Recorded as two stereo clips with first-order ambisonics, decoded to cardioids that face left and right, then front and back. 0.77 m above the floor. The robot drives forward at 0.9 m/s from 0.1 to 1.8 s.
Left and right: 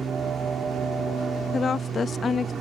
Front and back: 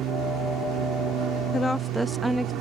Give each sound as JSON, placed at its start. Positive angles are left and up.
{"t": 0.0, "sound": "an aircraft", "azimuth_deg": -150}
{"t": 1.5, "sound": "a woman speaking", "azimuth_deg": 35}